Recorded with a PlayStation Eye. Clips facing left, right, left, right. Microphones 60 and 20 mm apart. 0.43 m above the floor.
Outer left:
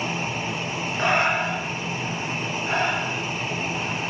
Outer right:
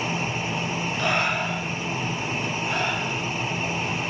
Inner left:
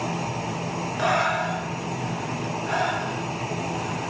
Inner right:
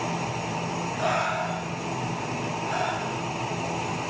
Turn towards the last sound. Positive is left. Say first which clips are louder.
# outer left 4 dB, inner left 4 dB
turn(degrees=30)  # may be behind; listen again after turning